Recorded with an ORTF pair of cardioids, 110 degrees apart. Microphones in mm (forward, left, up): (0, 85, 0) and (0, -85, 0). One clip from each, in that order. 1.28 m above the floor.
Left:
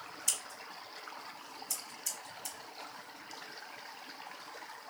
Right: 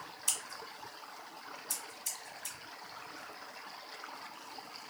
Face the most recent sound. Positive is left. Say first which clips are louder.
# even
turn(degrees=0)